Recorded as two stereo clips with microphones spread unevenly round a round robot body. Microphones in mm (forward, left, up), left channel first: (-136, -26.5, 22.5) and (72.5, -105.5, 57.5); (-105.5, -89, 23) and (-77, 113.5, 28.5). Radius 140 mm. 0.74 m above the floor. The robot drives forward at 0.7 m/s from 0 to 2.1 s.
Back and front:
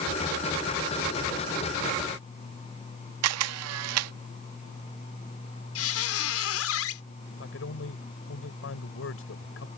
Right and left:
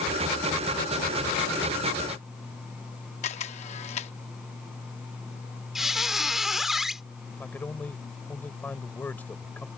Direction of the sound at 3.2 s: 30° right.